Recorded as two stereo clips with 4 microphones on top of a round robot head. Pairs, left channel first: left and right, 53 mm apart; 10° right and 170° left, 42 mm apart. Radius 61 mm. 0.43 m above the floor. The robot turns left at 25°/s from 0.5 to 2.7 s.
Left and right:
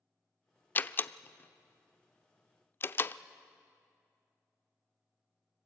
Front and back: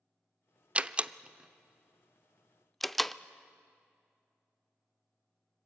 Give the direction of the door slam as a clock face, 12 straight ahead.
8 o'clock.